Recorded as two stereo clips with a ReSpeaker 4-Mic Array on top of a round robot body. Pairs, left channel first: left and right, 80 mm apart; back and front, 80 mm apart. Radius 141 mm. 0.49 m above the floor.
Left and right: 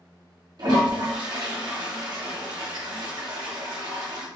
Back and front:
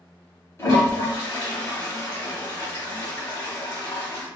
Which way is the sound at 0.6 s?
120° right.